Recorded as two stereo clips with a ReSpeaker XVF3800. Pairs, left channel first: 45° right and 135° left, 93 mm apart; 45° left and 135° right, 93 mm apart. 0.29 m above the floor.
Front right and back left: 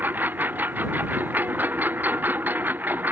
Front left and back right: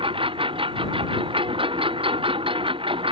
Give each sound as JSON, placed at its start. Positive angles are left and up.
{"t": 0.0, "sound": "a lawn mower", "azimuth_deg": -155}